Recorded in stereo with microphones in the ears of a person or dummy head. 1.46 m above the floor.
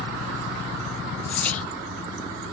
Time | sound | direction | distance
1.3 | whispering | 10° left (ahead or behind) | 0.6 m